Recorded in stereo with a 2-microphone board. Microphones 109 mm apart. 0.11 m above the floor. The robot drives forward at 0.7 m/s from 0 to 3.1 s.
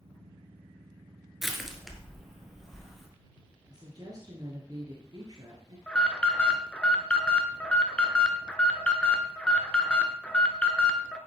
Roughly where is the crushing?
Centre.